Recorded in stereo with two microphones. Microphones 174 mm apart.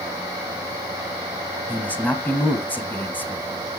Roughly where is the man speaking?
Centre.